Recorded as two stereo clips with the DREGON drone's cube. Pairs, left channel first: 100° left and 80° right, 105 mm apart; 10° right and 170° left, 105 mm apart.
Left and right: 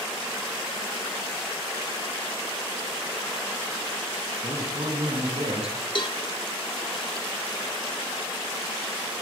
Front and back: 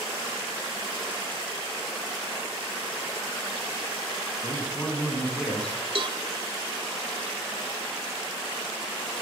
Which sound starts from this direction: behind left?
A cowbell, at 6.0 s.